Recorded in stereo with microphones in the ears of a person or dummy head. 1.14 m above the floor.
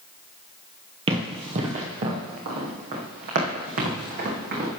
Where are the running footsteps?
30° right (ahead or behind), 1.6 m; by 4.7 s 60° right (ahead or behind), 3.5 m.